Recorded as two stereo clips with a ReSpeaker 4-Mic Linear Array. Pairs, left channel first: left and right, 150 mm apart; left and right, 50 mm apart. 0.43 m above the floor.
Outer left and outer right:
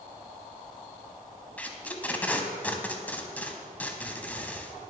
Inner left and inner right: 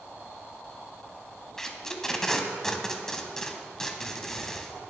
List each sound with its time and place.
1.6 s tape being pulled: 10° left (ahead or behind), 1.0 m